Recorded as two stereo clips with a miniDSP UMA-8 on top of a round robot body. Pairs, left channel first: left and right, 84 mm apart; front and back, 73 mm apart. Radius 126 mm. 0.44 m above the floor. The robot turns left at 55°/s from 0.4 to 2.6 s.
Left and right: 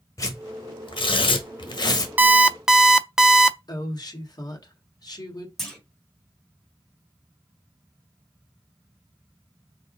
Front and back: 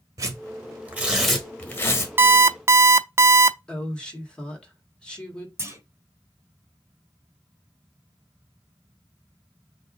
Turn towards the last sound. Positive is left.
turn(degrees=175)